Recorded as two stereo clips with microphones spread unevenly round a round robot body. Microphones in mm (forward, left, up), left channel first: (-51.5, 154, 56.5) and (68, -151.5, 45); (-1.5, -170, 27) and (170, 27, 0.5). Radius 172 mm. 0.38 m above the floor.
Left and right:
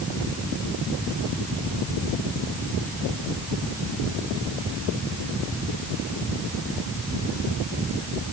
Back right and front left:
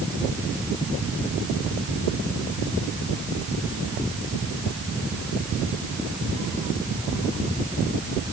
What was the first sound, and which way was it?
Only background noise.